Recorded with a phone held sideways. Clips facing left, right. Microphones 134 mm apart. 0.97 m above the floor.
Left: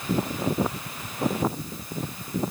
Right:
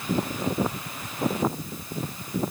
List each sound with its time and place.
Only background noise.